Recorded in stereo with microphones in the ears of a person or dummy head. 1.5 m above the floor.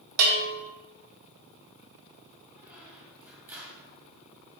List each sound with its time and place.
0.2 s a bell: 85° right, 1.8 m
2.6 s a squeak: 15° right (ahead or behind), 2.0 m